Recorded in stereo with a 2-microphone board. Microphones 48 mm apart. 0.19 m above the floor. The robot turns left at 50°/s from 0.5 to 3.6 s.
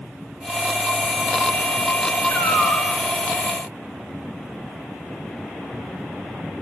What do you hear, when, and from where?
2.3 s a cat meowing: 75° left (ahead or behind), 8.5 m; by 2.9 s 50° left (ahead or behind), 8.5 m